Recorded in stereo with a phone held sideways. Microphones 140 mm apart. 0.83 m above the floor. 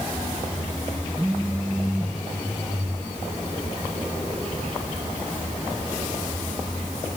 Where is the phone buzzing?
5° right (ahead or behind), 1.3 m.